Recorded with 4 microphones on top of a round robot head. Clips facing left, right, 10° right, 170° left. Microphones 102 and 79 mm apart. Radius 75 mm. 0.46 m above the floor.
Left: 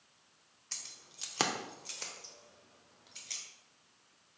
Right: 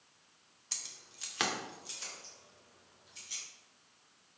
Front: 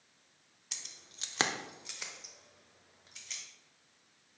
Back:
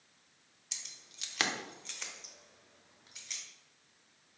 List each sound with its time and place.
0.7 s keys jangling: 15° right, 0.6 m; by 3.4 s 85° left, 1.8 m